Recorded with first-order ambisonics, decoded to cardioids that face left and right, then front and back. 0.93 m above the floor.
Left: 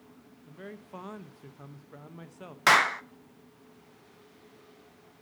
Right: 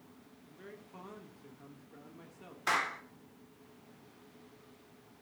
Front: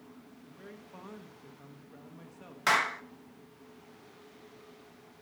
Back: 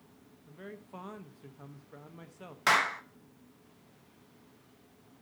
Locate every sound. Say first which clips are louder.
0.5 s a man speaking: left 7 dB, back 4 dB; 110° left, 0.8 m
2.7 s a clap: left 11 dB, back 1 dB; 95° left, 0.6 m